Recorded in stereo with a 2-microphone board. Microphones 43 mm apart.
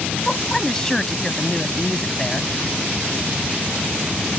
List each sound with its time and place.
0.2 s a woman speaking: 15° left (ahead or behind)